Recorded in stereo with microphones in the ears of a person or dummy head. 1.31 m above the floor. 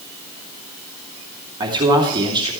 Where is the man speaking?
20° right (ahead or behind), 2.5 m.